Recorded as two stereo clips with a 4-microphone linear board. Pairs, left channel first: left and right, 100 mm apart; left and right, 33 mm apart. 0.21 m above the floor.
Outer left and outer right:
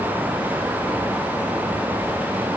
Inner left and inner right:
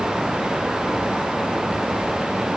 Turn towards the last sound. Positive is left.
No sound to turn to.